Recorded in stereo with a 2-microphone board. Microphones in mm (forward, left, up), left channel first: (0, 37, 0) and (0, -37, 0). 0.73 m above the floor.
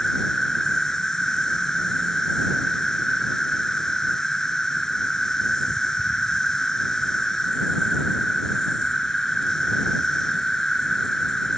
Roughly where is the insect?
Centre.